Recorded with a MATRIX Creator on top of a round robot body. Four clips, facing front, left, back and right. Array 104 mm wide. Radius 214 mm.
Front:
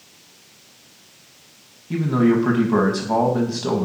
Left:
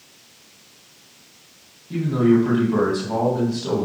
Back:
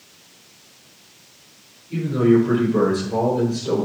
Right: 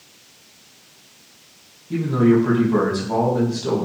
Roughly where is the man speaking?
Ahead.